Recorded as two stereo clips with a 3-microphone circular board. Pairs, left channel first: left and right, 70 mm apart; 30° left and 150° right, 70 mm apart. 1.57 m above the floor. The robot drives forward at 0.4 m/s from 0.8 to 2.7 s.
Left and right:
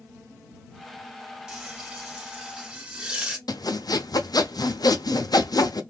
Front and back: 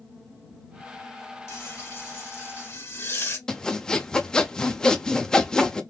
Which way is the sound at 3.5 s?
110° left.